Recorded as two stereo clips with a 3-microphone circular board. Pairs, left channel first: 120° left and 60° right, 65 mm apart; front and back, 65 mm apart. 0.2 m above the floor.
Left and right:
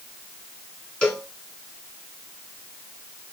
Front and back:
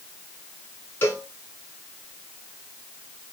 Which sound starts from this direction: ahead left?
A cowbell, at 1.0 s.